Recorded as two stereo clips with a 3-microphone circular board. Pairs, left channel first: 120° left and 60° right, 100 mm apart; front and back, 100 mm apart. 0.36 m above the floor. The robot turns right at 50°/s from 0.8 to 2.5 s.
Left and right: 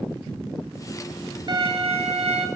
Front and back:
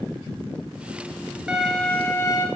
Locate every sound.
1.5 s a violin: 95° right, 1.4 m; by 2.5 s 45° right, 1.4 m